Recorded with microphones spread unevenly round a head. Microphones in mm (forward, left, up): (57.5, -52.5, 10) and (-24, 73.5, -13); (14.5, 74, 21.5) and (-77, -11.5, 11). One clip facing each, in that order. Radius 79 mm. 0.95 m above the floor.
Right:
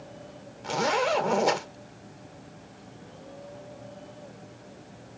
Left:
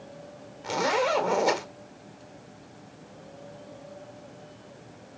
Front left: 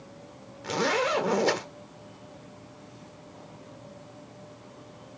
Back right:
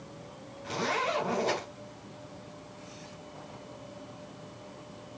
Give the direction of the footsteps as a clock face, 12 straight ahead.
No footsteps in this recording.